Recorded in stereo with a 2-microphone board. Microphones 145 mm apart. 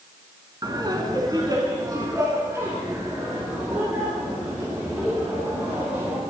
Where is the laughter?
30° right (ahead or behind), 1.5 m; by 6.2 s 5° right (ahead or behind), 4.5 m.